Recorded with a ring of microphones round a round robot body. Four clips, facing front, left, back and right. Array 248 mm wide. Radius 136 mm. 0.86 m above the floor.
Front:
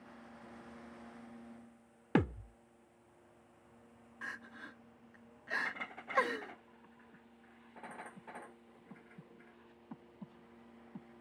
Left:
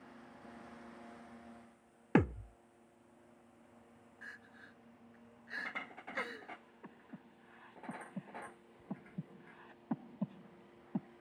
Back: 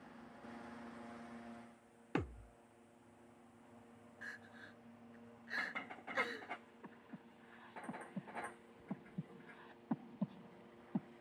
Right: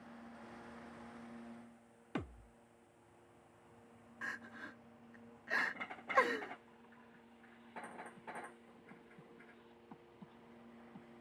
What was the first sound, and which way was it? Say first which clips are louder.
A thud: left 14 dB, front 9 dB; 55° left.